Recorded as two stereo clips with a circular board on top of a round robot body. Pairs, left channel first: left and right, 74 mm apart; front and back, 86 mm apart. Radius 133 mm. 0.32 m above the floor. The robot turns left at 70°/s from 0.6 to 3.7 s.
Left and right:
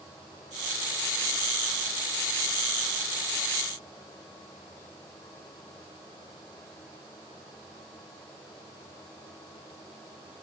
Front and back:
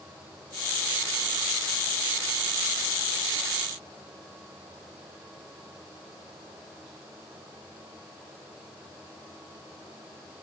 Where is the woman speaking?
No woman speaking in this recording.